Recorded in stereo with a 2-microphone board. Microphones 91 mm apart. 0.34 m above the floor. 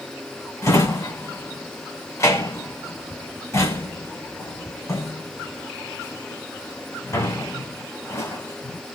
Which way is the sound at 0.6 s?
35° left (ahead or behind).